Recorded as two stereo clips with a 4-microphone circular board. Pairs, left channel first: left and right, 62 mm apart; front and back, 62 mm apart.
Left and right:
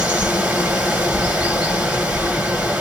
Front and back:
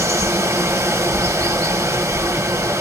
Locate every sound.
0.0 s running water: 155° right, 2 m